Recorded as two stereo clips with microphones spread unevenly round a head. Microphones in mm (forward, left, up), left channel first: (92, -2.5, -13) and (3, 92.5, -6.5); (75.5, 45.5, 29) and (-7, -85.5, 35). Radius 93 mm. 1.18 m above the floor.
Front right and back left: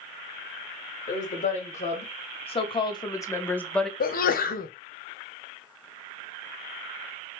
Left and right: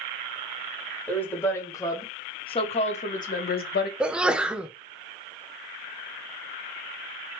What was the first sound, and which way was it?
A woman speaking, 20° right.